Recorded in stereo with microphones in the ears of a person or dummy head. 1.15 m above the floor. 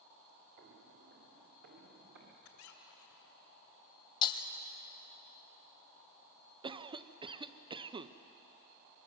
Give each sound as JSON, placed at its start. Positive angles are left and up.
{"t": 0.6, "sound": "footsteps", "side_deg": -45, "distance_m": 1.6}
{"t": 2.4, "sound": "a squeak", "side_deg": 80, "distance_m": 2.5}
{"t": 4.2, "sound": "breaking glass", "side_deg": 25, "distance_m": 1.4}
{"t": 6.6, "sound": "a cough", "side_deg": -25, "distance_m": 0.7}